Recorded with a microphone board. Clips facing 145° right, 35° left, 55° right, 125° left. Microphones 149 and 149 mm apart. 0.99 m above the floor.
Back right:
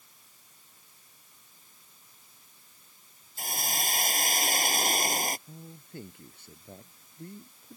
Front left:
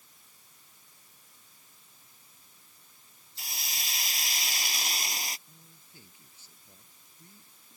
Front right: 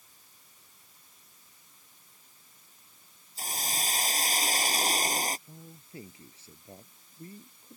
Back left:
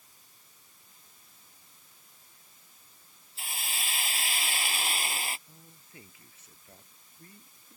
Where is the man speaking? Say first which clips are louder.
Back right 13 dB, front right 8 dB; 115° right.